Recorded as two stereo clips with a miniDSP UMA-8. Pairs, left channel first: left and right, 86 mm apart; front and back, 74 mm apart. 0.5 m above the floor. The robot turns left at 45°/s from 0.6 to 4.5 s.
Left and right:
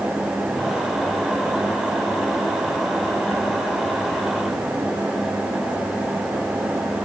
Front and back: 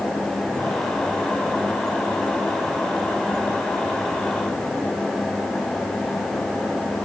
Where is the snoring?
I don't hear snoring.